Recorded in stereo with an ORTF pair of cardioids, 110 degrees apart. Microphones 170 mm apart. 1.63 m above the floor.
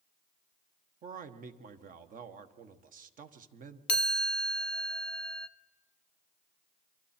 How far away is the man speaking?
About 1.4 m.